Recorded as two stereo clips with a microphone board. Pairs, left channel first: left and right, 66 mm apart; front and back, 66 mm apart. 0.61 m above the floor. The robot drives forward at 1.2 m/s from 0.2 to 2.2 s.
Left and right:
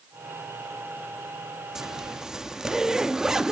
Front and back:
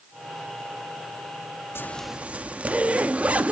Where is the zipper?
10° right, 0.6 m; by 3.5 s 160° right, 0.5 m.